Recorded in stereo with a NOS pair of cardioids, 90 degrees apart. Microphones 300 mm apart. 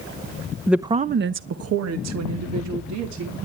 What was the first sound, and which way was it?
A woman speaking, straight ahead.